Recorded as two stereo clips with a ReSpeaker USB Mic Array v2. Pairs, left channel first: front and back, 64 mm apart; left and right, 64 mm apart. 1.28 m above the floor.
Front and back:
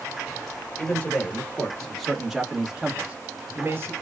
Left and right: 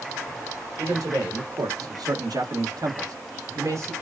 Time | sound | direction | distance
0.8 | a man speaking | 65° right | 1.6 m